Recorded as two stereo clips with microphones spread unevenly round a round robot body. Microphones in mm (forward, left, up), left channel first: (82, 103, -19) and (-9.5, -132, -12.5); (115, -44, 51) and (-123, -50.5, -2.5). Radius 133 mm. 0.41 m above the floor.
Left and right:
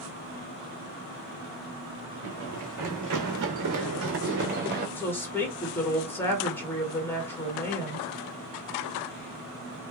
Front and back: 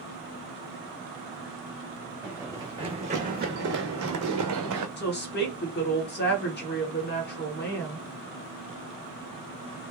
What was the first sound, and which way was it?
Running footsteps, 90° right.